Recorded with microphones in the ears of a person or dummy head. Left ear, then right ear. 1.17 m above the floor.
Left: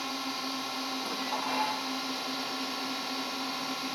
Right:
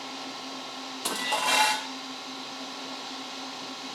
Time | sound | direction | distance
0.0 | a drone | 40° left (ahead or behind) | ?
1.1 | dishes clattering | 50° right (ahead or behind) | ?